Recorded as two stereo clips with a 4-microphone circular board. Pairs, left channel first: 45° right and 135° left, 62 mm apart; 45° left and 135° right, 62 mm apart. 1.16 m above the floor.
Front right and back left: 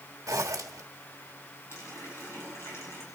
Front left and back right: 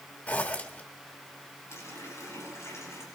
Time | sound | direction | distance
0.3 | a zipper | 105° left | 1.3 m
1.7 | a running tap | straight ahead | 7 m